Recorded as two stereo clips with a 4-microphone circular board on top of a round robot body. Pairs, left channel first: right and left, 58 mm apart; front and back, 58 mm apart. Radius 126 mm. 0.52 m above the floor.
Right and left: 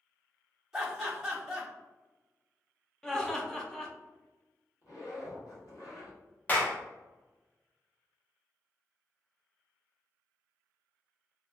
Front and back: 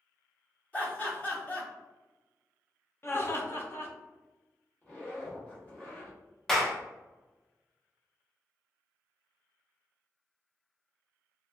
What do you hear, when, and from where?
0.7 s laughter: 20° left, 1.4 m
3.0 s laughter: 15° right, 0.9 m
4.8 s a zipper: 70° right, 1.3 m
6.5 s a clap: 80° right, 0.9 m